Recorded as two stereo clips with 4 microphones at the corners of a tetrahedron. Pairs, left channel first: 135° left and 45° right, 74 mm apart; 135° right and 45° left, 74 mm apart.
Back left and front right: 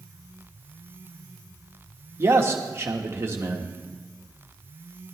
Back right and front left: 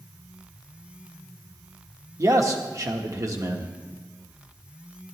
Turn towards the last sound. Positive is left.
turn(degrees=5)